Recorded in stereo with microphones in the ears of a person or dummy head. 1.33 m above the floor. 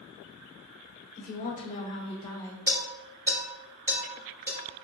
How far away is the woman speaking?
About 1.2 m.